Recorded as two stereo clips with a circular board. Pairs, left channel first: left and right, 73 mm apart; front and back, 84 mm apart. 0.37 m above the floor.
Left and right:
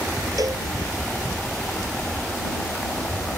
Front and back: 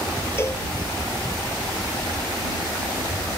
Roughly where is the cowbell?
Ahead right.